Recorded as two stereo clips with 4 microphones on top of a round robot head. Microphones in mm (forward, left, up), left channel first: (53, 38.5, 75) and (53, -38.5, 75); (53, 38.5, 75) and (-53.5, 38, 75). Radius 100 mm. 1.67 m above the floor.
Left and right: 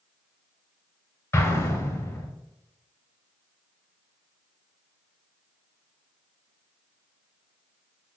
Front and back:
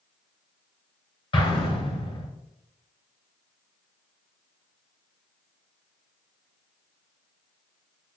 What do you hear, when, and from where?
1.3 s an explosion: 40° left, 2.5 m